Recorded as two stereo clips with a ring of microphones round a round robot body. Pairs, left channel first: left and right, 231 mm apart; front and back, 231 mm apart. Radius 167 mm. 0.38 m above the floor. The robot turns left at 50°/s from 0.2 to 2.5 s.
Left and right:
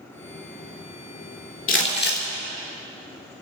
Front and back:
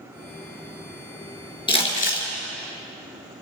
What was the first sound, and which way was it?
Crumpling, 70° left.